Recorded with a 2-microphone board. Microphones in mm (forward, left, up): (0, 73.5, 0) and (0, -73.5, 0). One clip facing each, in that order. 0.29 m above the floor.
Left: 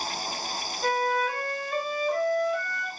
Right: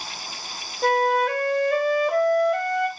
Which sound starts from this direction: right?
A flute, at 0.8 s.